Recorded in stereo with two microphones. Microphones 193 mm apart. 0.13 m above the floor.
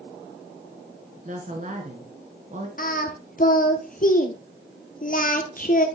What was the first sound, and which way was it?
A woman speaking, 40° right (ahead or behind).